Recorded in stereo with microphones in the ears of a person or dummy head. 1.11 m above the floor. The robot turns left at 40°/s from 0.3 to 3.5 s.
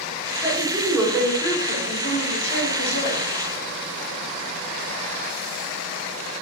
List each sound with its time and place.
0.4 s a woman speaking: 170° right, 5 m; by 3.2 s 75° left, 5 m